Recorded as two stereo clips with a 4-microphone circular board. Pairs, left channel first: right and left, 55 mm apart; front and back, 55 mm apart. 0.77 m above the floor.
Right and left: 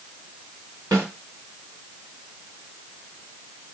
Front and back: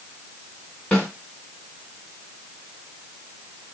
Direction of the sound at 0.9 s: 75° left.